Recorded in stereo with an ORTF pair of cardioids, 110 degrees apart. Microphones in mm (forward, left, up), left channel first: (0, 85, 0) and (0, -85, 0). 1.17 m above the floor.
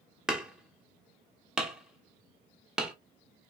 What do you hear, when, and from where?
0.3 s hammering: 5° right, 0.9 m